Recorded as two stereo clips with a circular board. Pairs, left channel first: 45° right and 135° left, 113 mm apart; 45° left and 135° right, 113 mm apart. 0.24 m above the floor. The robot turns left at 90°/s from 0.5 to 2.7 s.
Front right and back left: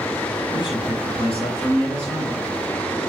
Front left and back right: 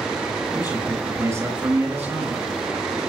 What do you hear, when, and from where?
0.5 s a man speaking: 5° left, 4.5 m; by 2.4 s 165° right, 4.5 m